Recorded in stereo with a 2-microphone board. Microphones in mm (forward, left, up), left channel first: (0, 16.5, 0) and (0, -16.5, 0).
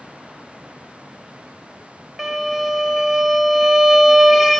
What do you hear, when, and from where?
2.2 s a violin: 5° right (ahead or behind), 0.6 m